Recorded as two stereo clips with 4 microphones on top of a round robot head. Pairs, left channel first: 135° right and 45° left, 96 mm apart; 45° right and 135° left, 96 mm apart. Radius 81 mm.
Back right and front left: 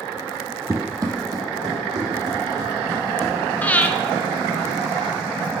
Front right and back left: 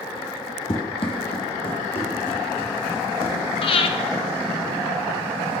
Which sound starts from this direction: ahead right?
Breathing, at 3.6 s.